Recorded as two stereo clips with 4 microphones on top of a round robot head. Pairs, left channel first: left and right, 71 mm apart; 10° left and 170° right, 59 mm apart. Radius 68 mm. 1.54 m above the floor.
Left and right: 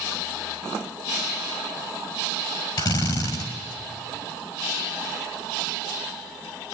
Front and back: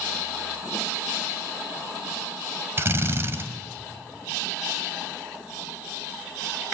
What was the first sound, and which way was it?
A drill, 135° left.